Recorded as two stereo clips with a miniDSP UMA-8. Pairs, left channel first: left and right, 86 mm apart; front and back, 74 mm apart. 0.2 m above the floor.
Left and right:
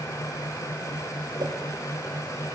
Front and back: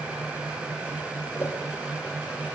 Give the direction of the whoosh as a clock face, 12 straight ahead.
2 o'clock.